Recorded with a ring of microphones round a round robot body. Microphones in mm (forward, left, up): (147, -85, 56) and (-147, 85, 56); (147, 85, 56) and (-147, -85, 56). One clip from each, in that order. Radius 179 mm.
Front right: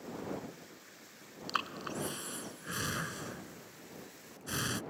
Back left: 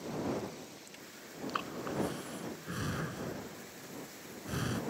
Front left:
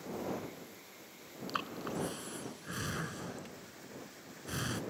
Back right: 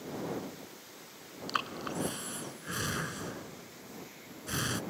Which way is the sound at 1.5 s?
75° right.